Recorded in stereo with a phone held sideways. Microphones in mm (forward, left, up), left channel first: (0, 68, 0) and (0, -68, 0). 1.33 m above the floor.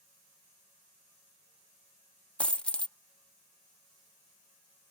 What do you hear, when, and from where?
2.4 s a dropped coin: 10° left (ahead or behind)